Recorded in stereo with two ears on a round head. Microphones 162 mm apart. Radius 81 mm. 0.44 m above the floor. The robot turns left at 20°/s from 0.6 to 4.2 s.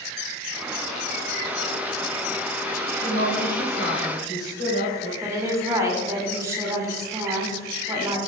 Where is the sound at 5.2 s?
15° right (ahead or behind), 1.5 m.